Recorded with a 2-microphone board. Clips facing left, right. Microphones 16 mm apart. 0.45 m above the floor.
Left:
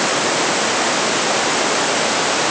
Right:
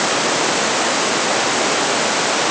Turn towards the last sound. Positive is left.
No sound to turn to.